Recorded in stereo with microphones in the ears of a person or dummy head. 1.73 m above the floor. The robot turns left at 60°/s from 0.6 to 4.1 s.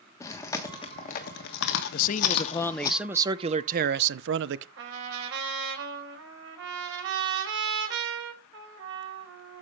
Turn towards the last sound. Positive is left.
turn(degrees=-70)  # may be behind; listen again after turning